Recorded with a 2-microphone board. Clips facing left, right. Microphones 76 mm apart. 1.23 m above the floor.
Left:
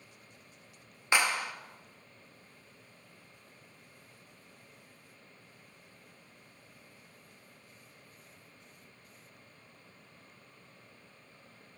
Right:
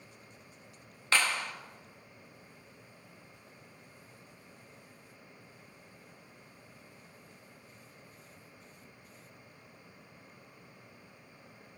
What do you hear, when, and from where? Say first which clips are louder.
1.1 s a clap: left 1 dB; 15° left (ahead or behind), 1.5 m